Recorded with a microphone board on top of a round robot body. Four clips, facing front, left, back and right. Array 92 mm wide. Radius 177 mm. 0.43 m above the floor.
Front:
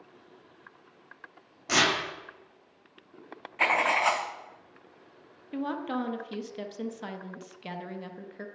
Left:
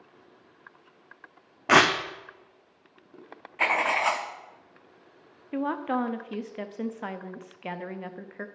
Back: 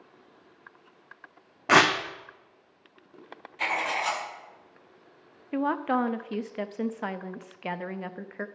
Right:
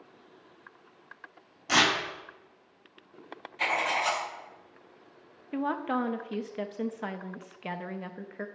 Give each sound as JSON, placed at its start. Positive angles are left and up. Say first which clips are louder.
{"t": 1.7, "sound": "tearing paper", "louder": "left 6 dB, back 6 dB", "azimuth_deg": 130, "distance_m": 0.8}
{"t": 3.6, "sound": "writing", "louder": "left 4 dB, front 4 dB", "azimuth_deg": 45, "distance_m": 1.1}
{"t": 5.5, "sound": "a woman speaking", "louder": "left 2 dB, back 6 dB", "azimuth_deg": 180, "distance_m": 0.8}